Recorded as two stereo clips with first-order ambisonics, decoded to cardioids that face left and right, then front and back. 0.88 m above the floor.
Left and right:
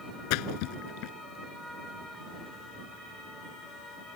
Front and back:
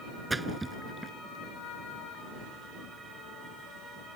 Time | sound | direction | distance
0.3 | a splash | 100° left | ?